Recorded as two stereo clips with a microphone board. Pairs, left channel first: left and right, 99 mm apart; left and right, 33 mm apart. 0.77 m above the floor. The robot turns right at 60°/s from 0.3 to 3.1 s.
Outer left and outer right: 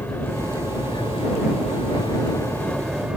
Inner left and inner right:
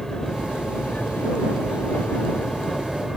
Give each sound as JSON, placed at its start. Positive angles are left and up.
{"t": 0.0, "sound": "an aircraft", "azimuth_deg": 25}